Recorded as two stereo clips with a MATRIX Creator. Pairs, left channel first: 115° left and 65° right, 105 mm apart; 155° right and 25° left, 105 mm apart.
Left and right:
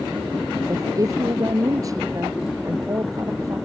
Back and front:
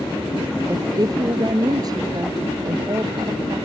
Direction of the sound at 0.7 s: 20° right.